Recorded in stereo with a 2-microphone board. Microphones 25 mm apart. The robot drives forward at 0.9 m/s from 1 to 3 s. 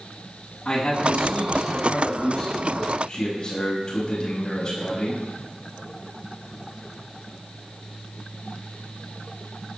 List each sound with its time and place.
0.7 s a man speaking: 20° left (ahead or behind), 7.5 m; by 5.2 s 30° left (ahead or behind), 5.5 m